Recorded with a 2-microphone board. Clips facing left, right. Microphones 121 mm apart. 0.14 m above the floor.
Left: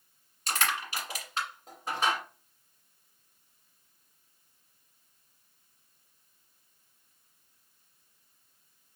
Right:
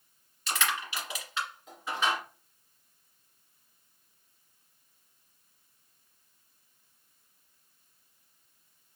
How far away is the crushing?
About 1.9 m.